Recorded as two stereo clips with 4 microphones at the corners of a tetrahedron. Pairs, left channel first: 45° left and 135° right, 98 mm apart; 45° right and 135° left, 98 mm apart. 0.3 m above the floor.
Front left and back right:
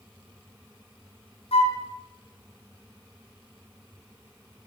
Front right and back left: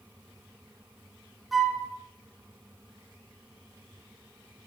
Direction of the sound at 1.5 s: 45° left.